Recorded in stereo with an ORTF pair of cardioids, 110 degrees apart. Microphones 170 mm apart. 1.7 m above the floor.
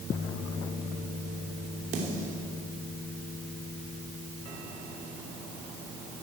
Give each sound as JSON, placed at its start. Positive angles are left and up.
{"t": 1.9, "sound": "a snare drum", "azimuth_deg": -55, "distance_m": 3.0}